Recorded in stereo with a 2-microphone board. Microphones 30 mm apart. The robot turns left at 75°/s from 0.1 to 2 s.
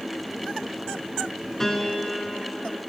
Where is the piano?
15° left (ahead or behind), 0.7 m; by 2.8 s 20° left (ahead or behind), 0.7 m.